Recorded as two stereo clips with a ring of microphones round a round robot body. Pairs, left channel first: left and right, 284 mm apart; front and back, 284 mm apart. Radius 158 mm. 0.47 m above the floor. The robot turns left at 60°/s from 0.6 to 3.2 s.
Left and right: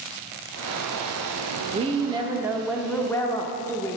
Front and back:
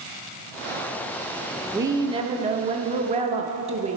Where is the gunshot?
No gunshot in this recording.